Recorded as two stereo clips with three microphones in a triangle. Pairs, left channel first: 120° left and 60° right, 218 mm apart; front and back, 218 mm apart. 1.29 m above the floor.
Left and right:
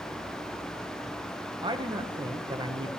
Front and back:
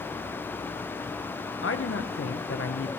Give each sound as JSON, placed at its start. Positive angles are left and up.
{"t": 1.6, "sound": "a man speaking", "azimuth_deg": 10, "distance_m": 1.0}